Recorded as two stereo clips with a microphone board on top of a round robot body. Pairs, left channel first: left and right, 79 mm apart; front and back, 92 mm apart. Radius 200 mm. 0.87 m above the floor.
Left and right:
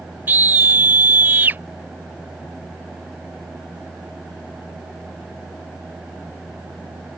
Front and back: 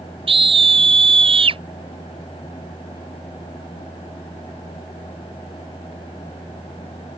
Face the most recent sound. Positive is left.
turn(degrees=-160)